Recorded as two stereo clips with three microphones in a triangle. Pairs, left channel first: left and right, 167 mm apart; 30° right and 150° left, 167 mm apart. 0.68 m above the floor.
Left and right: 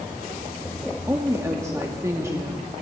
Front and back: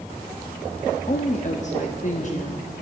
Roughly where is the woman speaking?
Ahead right.